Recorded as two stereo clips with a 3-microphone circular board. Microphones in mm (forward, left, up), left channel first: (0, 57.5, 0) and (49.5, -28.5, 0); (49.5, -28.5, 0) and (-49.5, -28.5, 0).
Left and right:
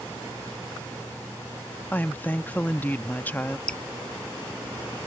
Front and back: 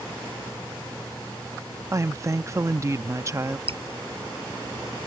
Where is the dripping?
160° right.